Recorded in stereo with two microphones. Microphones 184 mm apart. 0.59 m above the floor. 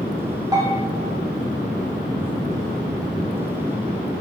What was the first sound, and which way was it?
A bell, 20° right (ahead or behind).